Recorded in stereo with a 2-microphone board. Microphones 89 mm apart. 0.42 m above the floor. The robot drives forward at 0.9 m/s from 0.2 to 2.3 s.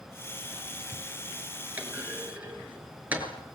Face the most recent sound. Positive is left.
turn(degrees=-20)  # may be behind; listen again after turning